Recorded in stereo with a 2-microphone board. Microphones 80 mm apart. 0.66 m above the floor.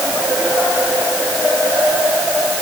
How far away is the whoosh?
I don't hear a whoosh.